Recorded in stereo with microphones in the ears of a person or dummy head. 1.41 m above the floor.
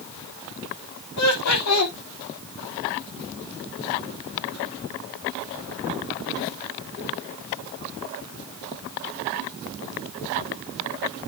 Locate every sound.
1.2 s laughter: 85° left, 2.5 m